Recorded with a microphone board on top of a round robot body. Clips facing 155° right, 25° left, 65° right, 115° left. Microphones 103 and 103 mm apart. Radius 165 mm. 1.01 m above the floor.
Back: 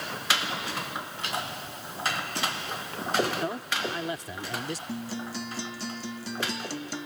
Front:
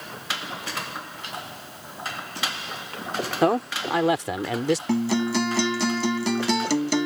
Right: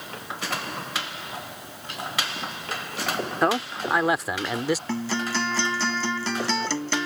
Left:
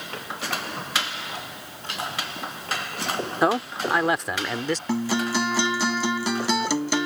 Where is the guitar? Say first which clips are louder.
Front 12 dB, left 3 dB; 35° left.